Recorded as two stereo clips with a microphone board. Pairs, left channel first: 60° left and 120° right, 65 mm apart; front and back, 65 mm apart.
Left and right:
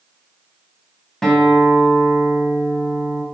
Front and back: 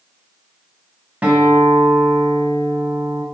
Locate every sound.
1.2 s a guitar: 135° left, 1.7 m